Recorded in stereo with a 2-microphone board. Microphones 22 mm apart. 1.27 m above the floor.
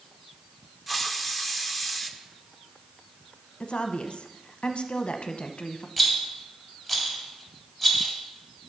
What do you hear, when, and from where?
0.9 s a hiss: 5° right (ahead or behind), 0.7 m
3.6 s a woman speaking: 60° left (ahead or behind), 0.7 m
6.0 s a rattle: 15° right (ahead or behind), 2.5 m